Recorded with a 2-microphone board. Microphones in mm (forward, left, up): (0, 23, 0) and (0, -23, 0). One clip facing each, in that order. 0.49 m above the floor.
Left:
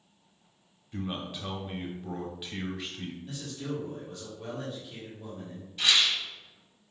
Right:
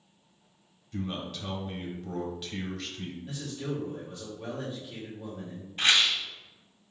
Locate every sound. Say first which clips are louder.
0.9 s a man speaking: even; 15° left (ahead or behind), 1.0 m
3.2 s a man speaking: right 3 dB; 15° right (ahead or behind), 1.2 m
5.8 s a rattle: right 1 dB; 40° right (ahead or behind), 1.5 m